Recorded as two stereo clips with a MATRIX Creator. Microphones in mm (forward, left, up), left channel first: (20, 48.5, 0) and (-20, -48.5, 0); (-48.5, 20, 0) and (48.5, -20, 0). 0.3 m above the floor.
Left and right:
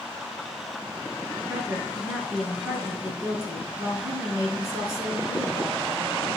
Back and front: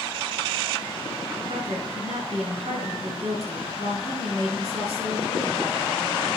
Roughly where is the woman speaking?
Ahead right.